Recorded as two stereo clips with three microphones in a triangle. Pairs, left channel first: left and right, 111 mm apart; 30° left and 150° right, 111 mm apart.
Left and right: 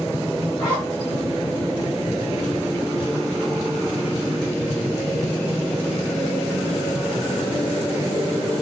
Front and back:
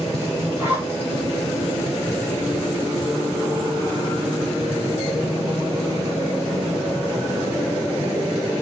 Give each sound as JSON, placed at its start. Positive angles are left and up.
{"t": 0.6, "sound": "a zipper", "azimuth_deg": 140, "distance_m": 2.5}